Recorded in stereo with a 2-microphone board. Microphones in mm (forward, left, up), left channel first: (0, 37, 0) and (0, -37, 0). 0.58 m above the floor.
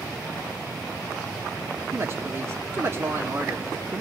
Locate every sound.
1.9 s a woman speaking: 35° right (ahead or behind), 1.4 m